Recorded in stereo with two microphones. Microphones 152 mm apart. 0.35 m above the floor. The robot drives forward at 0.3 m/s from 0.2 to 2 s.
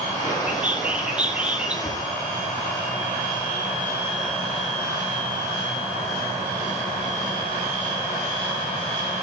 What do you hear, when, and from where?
0.5 s a bird: 10° right (ahead or behind), 2.0 m; by 1.7 s 5° right (ahead or behind), 2.5 m
1.8 s a cupboard door: 20° left (ahead or behind), 6.5 m